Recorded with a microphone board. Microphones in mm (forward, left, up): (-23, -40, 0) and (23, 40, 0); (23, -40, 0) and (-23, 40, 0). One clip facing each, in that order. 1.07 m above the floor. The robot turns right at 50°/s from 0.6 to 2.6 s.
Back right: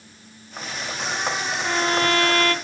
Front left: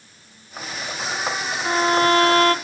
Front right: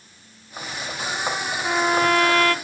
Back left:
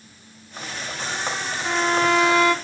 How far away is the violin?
About 0.5 m.